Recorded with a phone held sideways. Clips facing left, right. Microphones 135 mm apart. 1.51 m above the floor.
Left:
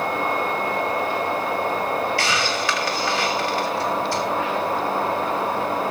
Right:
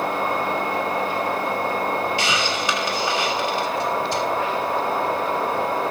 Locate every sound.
2.2 s a hiss: 20° right (ahead or behind), 2 m